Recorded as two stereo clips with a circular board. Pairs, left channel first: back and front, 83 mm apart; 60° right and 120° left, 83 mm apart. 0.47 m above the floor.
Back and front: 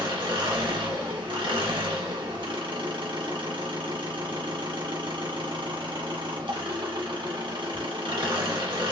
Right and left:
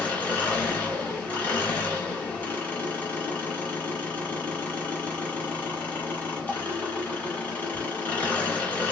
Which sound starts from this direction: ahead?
An engine running, at 0.0 s.